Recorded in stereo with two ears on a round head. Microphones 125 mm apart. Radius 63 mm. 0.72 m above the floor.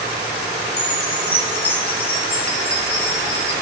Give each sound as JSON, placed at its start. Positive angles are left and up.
{"t": 0.8, "sound": "a chime", "side_deg": 45, "distance_m": 7.0}